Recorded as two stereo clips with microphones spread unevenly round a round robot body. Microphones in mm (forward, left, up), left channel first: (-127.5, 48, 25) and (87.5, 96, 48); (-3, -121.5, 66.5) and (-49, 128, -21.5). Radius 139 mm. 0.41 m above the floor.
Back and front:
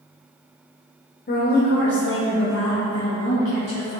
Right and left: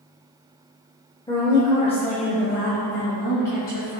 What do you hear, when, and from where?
1.3 s a woman speaking: 175° right, 1.1 m; by 4.0 s 140° right, 3 m